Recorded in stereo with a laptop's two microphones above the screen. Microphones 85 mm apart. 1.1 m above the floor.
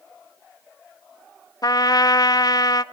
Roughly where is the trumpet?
Left.